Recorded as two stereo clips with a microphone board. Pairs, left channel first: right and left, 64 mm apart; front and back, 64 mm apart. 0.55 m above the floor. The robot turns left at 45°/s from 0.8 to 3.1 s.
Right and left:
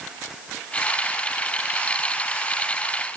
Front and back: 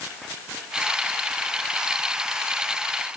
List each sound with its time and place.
Only background noise.